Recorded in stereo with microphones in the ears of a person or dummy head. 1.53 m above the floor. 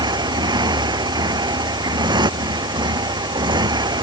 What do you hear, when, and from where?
0.0 s a motorcycle: 25° right (ahead or behind)